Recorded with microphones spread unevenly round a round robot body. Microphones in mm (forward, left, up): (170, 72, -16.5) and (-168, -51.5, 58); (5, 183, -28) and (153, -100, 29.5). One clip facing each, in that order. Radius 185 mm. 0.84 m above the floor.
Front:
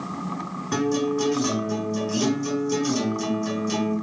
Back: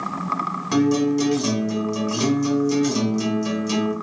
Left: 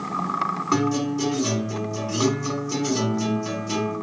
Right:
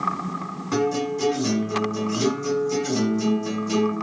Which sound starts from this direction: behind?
A guitar, at 0.7 s.